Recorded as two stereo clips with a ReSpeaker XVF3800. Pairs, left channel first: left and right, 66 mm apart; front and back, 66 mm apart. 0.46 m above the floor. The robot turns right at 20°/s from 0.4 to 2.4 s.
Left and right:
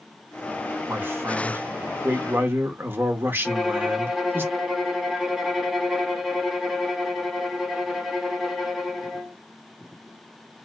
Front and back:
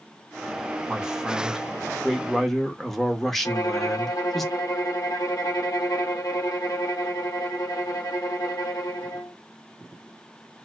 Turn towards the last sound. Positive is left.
turn(degrees=-10)